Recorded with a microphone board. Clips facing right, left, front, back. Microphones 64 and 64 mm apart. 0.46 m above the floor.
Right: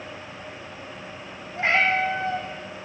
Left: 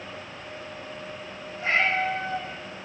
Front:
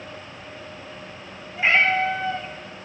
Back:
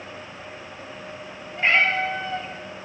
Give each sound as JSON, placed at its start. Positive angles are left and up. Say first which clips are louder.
{"t": 1.6, "sound": "a cat meowing", "louder": "right 3 dB, front 1 dB", "azimuth_deg": -90, "distance_m": 1.9}